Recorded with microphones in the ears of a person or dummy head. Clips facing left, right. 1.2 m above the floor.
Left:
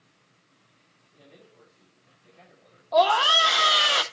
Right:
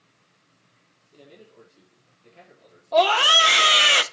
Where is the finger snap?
I don't hear a finger snap.